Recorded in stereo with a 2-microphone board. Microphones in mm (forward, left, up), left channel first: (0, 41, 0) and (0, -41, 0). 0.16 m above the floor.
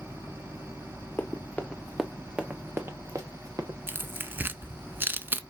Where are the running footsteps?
25° left (ahead or behind), 1.0 m; by 3.8 s 50° right (ahead or behind), 1.3 m.